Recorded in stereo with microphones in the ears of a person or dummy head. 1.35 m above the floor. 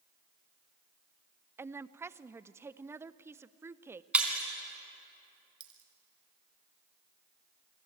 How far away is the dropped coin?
About 2.5 m.